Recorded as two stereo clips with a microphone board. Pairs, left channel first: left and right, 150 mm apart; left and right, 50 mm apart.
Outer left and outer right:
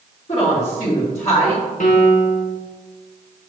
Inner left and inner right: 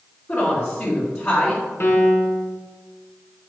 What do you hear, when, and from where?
0.3 s a woman speaking: 45° left (ahead or behind), 2.0 m
1.8 s a piano: 55° left (ahead or behind), 1.2 m